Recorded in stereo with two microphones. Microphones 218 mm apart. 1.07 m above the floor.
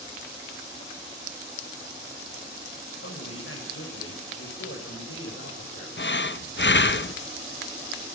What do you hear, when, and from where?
3.0 s a man speaking: 75° left (ahead or behind), 6.5 m
6.0 s breathing: 55° left (ahead or behind), 0.6 m